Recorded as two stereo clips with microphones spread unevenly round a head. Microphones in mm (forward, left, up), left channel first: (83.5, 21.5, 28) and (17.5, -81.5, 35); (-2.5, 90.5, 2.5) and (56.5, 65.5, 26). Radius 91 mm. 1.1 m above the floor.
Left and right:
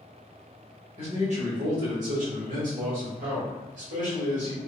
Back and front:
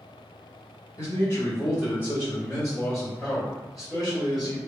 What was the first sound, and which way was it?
A man speaking, 165° right.